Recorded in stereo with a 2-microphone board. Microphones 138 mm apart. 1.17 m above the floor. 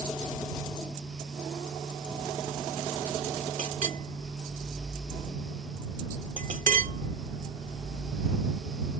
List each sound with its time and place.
3.6 s a clink: 70° right (ahead or behind)